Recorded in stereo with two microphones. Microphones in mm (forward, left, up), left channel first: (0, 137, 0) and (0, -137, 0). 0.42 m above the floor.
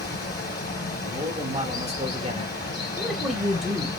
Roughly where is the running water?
Left.